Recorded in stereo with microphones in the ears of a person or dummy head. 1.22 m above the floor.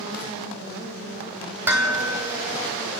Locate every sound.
1.7 s dishes clattering: 10° right (ahead or behind), 3.5 m